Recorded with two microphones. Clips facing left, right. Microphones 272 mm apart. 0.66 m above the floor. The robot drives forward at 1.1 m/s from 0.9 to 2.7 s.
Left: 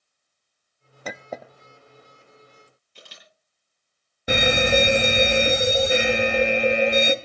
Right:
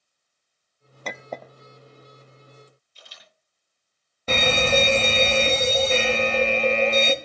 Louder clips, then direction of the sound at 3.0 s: Left 7 dB; 75° left (ahead or behind).